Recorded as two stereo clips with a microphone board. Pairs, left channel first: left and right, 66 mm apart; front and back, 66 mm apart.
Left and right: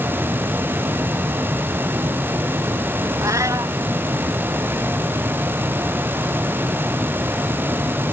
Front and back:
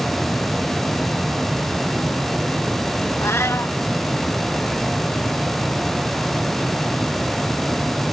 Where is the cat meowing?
50° right.